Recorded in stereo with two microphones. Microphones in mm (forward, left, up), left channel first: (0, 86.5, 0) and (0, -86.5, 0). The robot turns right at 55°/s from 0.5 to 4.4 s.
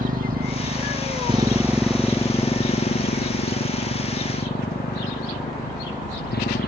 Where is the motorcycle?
55° right (ahead or behind); by 6.7 s 65° left (ahead or behind).